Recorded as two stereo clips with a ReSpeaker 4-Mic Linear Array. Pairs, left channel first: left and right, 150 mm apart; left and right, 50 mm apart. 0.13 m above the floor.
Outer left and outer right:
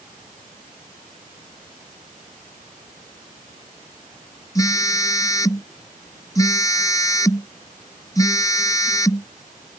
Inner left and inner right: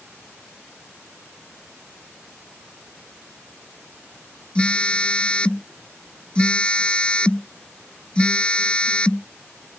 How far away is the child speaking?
No child speaking in this recording.